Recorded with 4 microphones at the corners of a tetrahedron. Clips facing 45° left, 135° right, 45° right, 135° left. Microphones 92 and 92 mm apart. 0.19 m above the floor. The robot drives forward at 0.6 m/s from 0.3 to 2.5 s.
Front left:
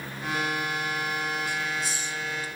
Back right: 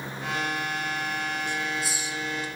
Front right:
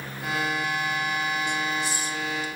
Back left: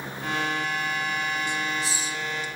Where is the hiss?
40° right, 1.1 m; by 2.5 s 75° right, 0.8 m.